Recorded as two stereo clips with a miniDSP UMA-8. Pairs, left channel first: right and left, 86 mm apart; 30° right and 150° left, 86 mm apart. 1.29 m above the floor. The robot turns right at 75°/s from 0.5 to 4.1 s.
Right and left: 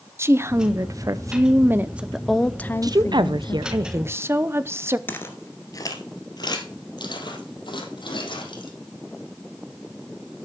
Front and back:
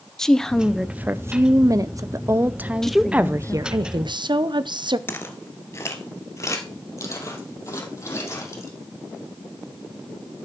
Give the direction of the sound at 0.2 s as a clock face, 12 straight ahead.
10 o'clock.